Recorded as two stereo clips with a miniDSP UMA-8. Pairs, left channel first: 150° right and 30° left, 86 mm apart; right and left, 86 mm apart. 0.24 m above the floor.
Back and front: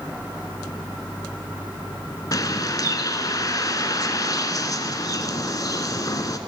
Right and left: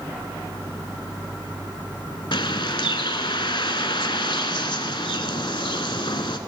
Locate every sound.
2.3 s a bird: 110° right, 0.8 m